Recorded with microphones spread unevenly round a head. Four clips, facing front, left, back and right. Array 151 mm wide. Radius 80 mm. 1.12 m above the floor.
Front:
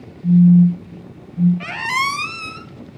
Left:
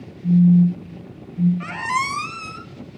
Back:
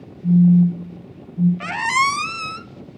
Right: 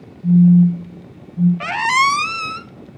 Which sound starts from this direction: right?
A squeak, at 1.6 s.